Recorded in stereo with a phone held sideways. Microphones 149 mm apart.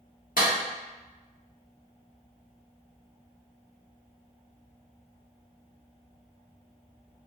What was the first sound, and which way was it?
A clap, 70° left (ahead or behind).